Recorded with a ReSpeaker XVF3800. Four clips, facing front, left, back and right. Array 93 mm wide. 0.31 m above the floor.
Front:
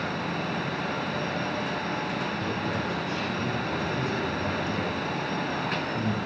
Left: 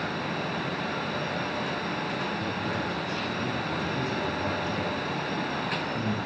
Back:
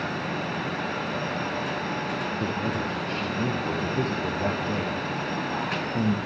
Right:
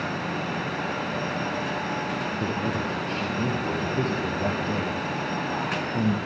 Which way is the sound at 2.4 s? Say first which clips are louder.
Right 3 dB, back 2 dB; 135° right.